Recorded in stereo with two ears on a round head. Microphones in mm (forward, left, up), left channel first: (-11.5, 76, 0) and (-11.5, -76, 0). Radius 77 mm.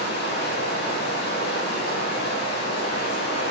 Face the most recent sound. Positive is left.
turn(degrees=70)  # may be behind; listen again after turning